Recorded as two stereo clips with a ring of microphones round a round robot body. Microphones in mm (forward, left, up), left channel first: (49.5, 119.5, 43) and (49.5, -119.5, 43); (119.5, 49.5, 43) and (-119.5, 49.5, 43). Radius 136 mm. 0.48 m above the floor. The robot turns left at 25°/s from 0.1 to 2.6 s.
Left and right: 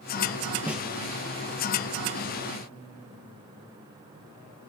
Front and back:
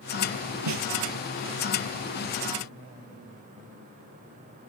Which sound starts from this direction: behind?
A snare drum, at 0.7 s.